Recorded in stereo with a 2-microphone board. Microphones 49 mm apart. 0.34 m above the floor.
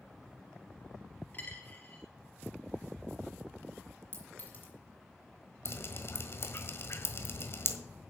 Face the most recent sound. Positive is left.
turn(degrees=55)  # may be behind; listen again after turning